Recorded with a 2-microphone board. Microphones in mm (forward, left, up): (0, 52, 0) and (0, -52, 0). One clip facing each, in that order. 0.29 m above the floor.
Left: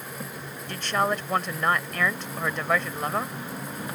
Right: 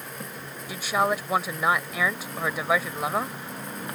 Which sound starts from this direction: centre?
A woman speaking, at 0.7 s.